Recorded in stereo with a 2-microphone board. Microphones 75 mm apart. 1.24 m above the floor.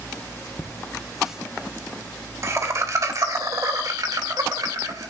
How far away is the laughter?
About 0.9 m.